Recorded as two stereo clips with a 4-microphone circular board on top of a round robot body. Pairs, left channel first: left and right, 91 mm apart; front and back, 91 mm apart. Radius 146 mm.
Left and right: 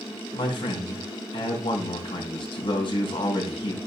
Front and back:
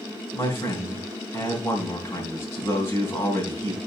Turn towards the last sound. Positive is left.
turn(degrees=65)